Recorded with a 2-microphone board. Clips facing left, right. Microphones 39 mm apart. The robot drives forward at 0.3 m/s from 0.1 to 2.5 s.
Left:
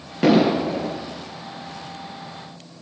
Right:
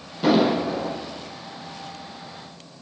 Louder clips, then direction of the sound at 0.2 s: Left 2 dB; 65° left (ahead or behind).